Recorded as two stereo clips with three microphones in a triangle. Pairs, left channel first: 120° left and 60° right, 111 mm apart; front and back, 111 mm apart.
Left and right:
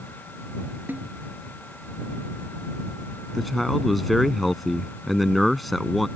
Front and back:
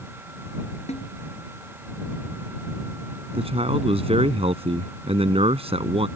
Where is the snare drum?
15° left.